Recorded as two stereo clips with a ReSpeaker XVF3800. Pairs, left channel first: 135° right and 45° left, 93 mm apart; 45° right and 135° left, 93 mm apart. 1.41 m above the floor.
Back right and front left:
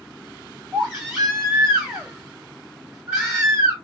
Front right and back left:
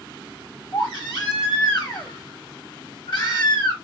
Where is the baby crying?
35° right, 1.7 m.